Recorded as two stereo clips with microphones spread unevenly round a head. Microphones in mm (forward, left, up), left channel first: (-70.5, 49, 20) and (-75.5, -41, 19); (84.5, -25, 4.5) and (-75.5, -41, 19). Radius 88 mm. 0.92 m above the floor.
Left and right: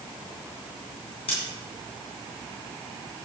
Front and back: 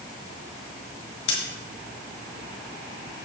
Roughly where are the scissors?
Ahead left.